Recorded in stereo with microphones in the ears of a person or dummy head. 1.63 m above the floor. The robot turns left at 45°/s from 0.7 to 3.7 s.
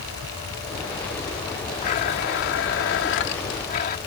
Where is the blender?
135° left; by 4.0 s 50° left.